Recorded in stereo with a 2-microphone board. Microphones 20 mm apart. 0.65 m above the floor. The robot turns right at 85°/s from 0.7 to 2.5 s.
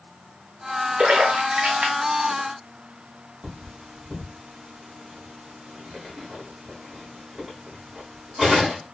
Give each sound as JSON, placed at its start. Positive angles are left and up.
{"t": 1.0, "sound": "a splash", "side_deg": -50, "distance_m": 0.6}
{"t": 3.4, "sound": "cutlery clinking", "side_deg": -35, "distance_m": 1.3}